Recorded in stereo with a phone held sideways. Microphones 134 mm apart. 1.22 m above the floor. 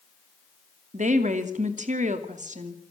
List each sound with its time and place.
0.9 s a woman speaking: 65° right (ahead or behind), 2.5 m